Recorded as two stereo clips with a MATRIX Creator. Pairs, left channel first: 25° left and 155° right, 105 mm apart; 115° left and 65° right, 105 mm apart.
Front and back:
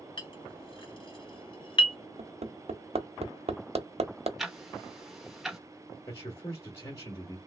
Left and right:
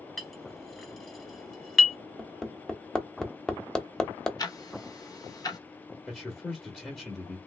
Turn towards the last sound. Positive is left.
turn(degrees=35)